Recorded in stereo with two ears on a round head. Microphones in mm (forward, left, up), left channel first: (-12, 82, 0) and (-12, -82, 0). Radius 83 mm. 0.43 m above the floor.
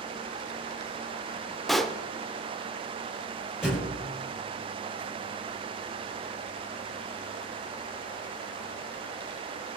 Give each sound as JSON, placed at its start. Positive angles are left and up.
{"t": 1.7, "sound": "a pop", "side_deg": 0, "distance_m": 0.8}
{"t": 3.6, "sound": "a thud", "side_deg": -5, "distance_m": 5.0}